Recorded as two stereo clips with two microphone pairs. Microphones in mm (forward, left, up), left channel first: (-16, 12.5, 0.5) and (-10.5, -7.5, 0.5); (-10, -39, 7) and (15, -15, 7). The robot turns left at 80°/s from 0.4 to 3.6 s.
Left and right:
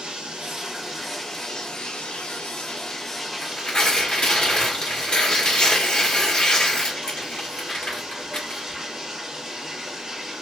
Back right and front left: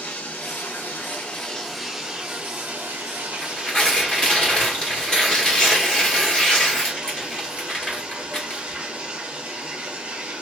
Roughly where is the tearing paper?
Behind.